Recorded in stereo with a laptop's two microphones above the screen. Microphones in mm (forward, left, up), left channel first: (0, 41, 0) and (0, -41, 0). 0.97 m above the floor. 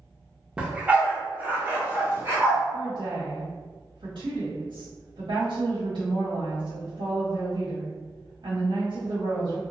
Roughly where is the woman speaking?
Right.